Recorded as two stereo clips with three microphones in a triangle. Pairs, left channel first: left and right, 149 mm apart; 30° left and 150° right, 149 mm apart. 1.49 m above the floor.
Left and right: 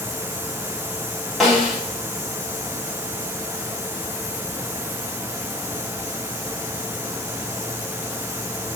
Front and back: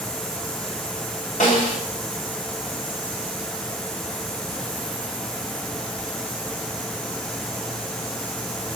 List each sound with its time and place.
1.4 s a snare drum: straight ahead, 2 m